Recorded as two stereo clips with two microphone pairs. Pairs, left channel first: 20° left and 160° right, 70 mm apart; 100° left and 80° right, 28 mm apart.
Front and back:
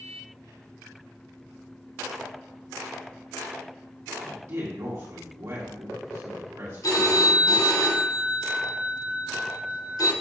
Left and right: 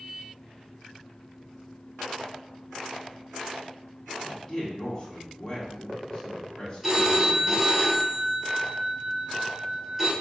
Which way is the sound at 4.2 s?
165° left.